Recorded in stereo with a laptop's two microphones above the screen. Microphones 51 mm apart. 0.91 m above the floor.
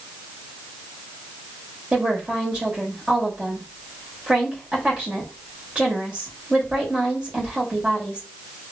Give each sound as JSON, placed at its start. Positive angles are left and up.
{"t": 1.9, "sound": "a woman speaking", "side_deg": -20, "distance_m": 2.5}